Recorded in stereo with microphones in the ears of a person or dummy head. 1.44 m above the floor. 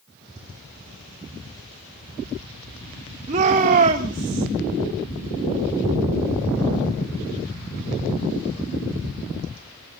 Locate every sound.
3.3 s a shout: 40° right (ahead or behind), 3 m